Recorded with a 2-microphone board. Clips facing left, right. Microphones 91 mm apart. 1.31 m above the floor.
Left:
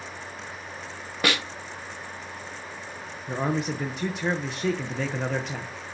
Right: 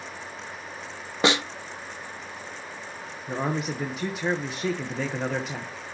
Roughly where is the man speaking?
Centre.